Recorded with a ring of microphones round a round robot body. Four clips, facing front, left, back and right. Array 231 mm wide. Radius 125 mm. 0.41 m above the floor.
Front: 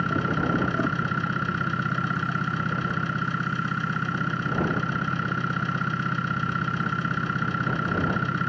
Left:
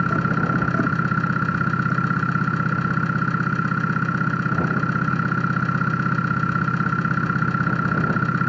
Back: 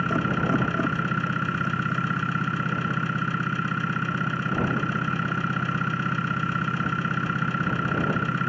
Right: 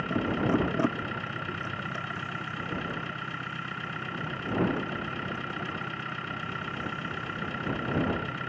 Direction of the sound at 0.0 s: 95° left.